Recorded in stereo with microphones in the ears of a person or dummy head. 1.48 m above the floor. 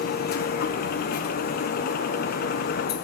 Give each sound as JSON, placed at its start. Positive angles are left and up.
{"t": 0.0, "sound": "a machine running", "side_deg": 55, "distance_m": 0.9}